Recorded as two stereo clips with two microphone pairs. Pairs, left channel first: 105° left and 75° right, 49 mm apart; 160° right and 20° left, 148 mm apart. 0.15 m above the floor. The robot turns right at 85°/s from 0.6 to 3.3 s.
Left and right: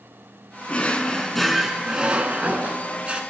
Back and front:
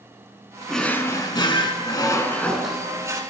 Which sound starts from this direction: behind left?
A drawer, at 0.7 s.